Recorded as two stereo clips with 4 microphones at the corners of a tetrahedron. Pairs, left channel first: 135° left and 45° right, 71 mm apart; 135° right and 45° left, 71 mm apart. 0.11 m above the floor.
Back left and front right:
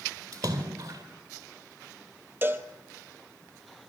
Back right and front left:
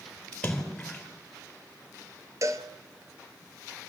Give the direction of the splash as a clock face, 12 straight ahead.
2 o'clock.